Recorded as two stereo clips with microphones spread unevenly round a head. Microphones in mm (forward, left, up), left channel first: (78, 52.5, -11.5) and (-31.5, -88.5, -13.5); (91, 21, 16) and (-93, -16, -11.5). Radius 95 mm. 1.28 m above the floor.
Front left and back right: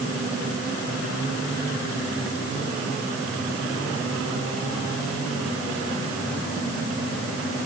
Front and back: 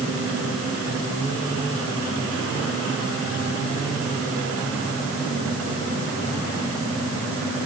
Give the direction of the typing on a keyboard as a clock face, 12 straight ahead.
No typing on a keyboard in this recording.